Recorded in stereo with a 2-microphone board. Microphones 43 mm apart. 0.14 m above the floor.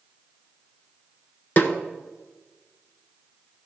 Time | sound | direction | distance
1.6 | a snare drum | 40° left (ahead or behind) | 1.0 m